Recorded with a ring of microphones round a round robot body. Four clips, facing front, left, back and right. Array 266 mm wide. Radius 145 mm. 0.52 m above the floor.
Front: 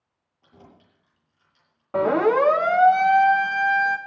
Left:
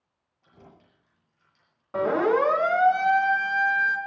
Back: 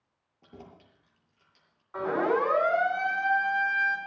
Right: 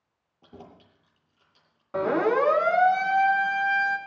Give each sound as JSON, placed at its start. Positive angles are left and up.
{"t": 0.4, "sound": "keys jangling", "azimuth_deg": -120, "distance_m": 8.0}
{"t": 1.9, "sound": "a siren", "azimuth_deg": -10, "distance_m": 6.5}